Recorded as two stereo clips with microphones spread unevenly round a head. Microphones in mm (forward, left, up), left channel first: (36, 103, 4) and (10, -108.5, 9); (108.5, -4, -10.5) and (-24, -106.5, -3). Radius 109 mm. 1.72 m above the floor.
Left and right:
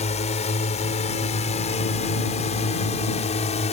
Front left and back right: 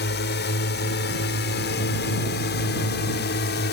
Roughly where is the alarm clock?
I don't hear an alarm clock.